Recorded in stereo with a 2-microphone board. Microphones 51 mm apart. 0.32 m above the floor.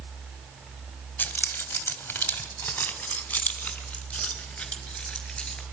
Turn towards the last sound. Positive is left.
turn(degrees=15)  # may be behind; listen again after turning